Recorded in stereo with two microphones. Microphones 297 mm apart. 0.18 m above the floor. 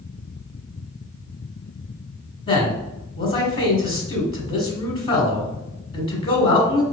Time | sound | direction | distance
2.5 | a man speaking | 20° left (ahead or behind) | 1.0 m